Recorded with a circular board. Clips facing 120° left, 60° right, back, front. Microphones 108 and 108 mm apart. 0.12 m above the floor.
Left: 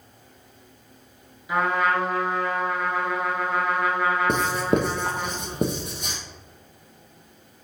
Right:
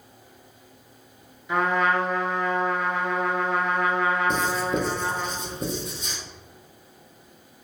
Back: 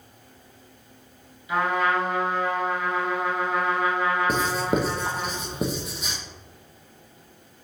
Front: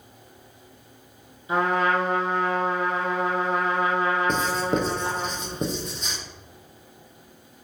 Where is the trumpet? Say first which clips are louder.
Even, front 1 dB; 35° left, 0.9 m.